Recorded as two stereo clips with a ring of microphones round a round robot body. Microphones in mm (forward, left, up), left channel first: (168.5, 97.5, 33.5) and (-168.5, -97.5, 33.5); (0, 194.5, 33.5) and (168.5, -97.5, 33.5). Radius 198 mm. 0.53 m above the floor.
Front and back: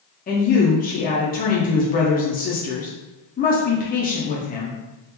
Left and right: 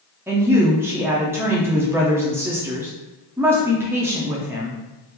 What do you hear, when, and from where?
0.3 s a woman speaking: 10° left, 0.6 m